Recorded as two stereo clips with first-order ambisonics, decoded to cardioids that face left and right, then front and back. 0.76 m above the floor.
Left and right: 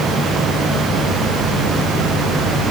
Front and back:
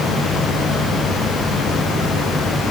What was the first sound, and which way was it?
Only background noise.